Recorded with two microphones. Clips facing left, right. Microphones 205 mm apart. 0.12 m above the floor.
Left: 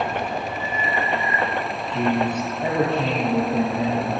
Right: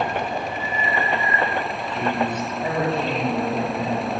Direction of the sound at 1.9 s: 20° left (ahead or behind).